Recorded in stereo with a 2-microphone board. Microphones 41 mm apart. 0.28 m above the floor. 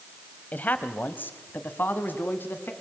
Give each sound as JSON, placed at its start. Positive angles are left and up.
{"t": 0.5, "sound": "a man speaking", "side_deg": 45, "distance_m": 1.2}